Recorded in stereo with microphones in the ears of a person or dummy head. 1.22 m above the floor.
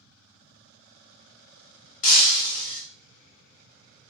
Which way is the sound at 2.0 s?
40° left (ahead or behind).